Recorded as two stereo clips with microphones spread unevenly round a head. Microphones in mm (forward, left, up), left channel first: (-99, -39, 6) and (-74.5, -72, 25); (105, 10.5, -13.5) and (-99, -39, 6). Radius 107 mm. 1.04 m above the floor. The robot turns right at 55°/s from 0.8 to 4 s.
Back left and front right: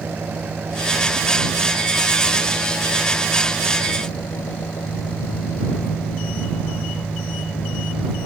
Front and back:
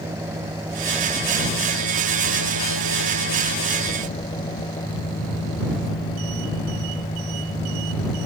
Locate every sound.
0.0 s an engine running: 90° right; by 8.3 s 85° left